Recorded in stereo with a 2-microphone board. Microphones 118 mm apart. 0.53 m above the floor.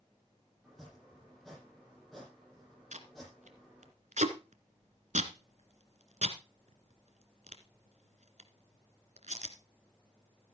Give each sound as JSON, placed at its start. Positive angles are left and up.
{"t": 0.6, "sound": "chopping", "side_deg": 0, "distance_m": 7.5}
{"t": 2.9, "sound": "tape being pulled", "side_deg": -85, "distance_m": 1.6}